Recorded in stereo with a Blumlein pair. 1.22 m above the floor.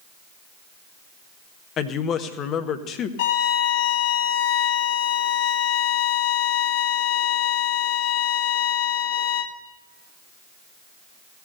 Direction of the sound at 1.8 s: 30° left.